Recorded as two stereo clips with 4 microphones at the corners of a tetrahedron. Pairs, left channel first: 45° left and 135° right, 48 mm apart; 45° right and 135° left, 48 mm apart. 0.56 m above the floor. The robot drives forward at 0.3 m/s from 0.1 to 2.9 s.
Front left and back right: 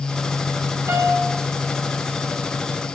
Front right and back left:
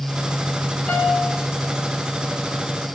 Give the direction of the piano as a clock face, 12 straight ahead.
4 o'clock.